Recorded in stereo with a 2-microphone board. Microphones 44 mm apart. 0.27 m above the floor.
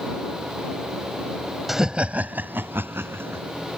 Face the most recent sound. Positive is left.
turn(degrees=-70)  # may be behind; listen again after turning